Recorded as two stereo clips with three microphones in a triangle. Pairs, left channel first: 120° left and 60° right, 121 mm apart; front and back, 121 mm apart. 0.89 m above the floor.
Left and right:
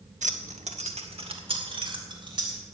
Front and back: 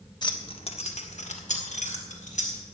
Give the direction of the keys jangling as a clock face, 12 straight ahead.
2 o'clock.